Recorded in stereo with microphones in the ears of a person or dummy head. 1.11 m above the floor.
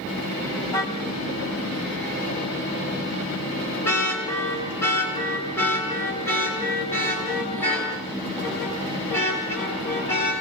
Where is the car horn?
20° left (ahead or behind), 3.5 m; by 10.3 s 15° left (ahead or behind), 11.5 m.